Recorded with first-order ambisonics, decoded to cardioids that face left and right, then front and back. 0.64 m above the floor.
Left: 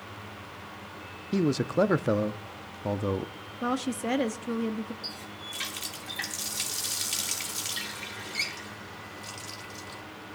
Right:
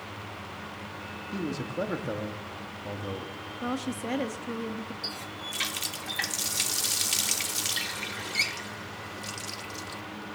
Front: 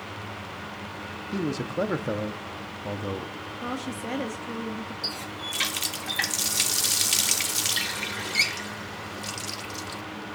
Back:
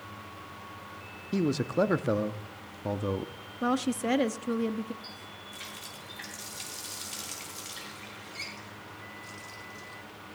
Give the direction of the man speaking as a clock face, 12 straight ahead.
8 o'clock.